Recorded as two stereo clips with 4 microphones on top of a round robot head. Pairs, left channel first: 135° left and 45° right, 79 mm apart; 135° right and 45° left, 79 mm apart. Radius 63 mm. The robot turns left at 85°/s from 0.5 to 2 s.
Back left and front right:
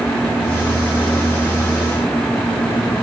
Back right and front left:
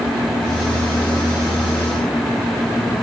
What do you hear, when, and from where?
Only background noise.